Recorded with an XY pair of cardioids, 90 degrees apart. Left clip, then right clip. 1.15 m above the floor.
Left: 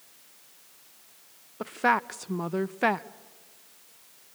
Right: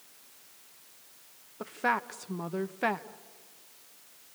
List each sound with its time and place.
1.6 s a woman speaking: 35° left, 0.6 m